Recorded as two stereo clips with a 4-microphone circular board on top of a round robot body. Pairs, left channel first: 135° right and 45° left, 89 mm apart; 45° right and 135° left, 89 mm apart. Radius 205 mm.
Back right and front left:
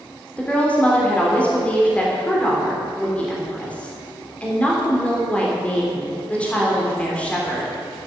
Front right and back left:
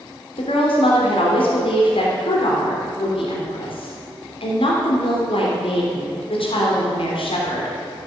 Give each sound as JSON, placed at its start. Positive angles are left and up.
{"t": 0.4, "sound": "a woman speaking", "azimuth_deg": -60, "distance_m": 3.0}